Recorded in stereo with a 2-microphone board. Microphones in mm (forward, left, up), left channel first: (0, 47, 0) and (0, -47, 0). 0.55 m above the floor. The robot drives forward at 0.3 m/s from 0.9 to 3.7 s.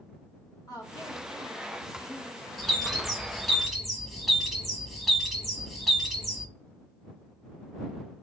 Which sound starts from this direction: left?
A woman speaking, at 0.7 s.